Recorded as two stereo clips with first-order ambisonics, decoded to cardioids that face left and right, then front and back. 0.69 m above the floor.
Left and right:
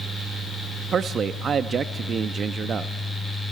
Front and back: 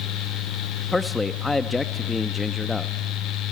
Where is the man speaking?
70° right, 0.6 m.